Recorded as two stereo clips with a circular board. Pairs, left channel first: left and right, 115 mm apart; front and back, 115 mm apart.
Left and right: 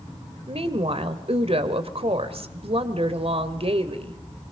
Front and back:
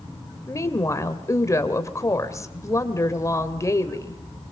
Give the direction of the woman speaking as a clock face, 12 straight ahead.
2 o'clock.